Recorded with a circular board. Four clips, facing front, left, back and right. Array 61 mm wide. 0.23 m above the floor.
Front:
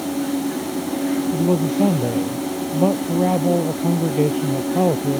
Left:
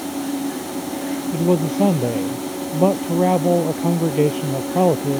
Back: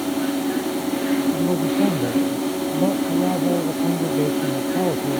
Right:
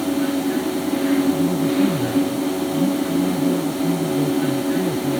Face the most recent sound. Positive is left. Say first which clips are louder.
# even, front 1 dB
turn(degrees=75)